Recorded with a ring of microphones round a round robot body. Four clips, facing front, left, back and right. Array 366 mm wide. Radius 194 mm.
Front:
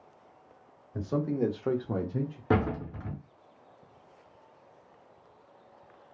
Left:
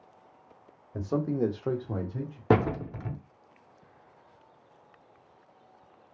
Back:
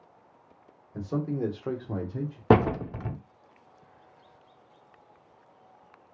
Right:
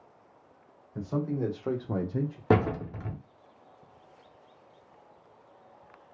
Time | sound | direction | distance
0.9 | a man speaking | 80° left | 1.3 m
2.5 | a door slam | 175° left | 0.6 m